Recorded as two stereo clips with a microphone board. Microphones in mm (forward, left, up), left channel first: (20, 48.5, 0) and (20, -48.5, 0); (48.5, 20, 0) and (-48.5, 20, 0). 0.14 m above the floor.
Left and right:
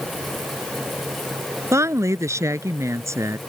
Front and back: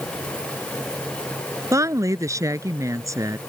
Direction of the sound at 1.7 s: 135° right.